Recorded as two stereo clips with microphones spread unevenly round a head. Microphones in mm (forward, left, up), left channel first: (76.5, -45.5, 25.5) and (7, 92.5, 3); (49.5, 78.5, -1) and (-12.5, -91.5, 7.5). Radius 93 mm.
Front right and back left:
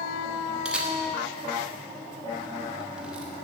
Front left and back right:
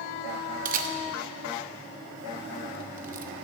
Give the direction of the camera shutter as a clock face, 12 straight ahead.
5 o'clock.